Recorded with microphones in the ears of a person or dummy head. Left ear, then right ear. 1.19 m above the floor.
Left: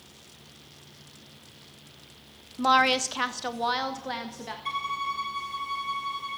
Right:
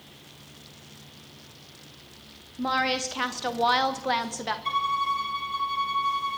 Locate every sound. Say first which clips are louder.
2.6 s a woman speaking: left 4 dB; 45° left (ahead or behind), 1.0 m; by 4.5 s 40° right (ahead or behind), 1.5 m
4.7 s a violin: right 4 dB; centre (ahead or behind), 1.6 m